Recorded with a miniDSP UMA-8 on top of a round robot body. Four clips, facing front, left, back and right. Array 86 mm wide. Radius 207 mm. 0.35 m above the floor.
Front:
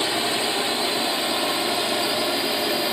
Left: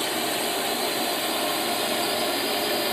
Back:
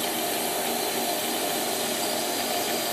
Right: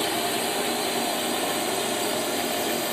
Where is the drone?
Straight ahead; by 2.9 s 20° left.